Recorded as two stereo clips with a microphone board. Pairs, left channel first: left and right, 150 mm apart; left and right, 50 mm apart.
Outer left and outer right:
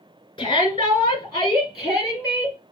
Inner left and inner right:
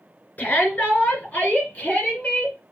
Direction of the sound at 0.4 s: 30° left (ahead or behind).